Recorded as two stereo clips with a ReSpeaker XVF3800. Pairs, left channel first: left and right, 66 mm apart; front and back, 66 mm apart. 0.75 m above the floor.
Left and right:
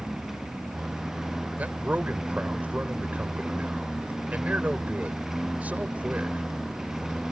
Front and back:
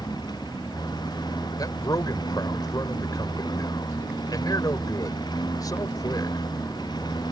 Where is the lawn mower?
5° right.